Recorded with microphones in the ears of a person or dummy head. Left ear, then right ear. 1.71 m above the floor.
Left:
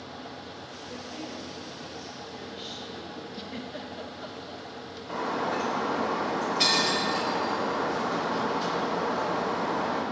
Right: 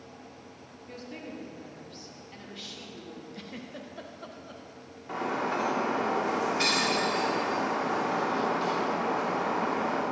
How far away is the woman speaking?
About 3 m.